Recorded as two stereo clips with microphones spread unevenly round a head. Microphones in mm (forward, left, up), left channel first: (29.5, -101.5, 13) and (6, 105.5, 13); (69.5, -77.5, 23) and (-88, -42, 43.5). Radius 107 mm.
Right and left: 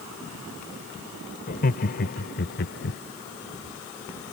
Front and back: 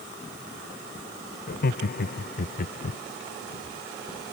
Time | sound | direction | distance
1.5 | laughter | 35° right | ?